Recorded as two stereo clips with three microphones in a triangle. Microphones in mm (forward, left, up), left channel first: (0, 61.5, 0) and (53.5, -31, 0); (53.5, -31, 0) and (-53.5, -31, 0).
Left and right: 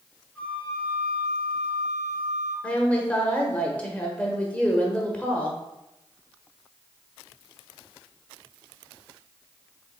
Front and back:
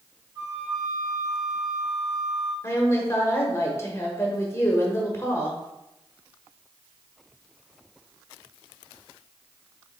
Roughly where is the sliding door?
I don't hear a sliding door.